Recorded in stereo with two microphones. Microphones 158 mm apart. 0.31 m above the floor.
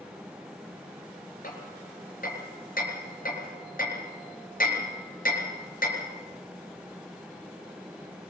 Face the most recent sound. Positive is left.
turn(degrees=65)  # may be behind; listen again after turning